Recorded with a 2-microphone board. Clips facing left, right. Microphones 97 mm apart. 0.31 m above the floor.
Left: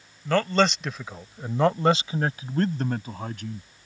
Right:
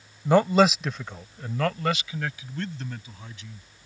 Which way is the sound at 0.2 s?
20° right (ahead or behind).